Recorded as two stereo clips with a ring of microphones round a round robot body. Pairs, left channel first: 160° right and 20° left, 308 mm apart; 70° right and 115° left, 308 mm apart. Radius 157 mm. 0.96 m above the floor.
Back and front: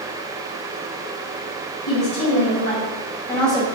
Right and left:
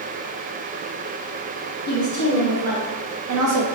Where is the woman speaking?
160° left, 1.2 m; by 3.6 s 105° left, 0.6 m.